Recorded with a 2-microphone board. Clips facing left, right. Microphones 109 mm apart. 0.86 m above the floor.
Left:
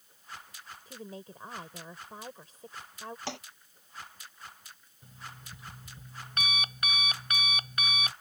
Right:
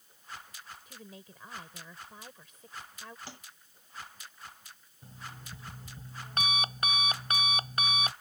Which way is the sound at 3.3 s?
85° left.